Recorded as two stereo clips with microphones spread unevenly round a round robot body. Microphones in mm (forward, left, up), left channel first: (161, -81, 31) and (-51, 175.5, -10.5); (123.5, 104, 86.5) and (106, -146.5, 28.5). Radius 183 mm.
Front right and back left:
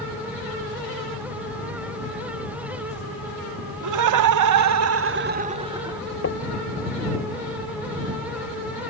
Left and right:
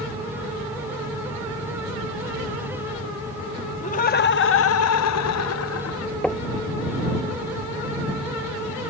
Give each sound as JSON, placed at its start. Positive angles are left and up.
{"t": 3.8, "sound": "laughter", "azimuth_deg": 155}
{"t": 6.2, "sound": "knocking", "azimuth_deg": 0}